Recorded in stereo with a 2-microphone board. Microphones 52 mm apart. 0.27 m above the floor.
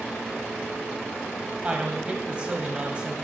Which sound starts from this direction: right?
A woman speaking, at 1.6 s.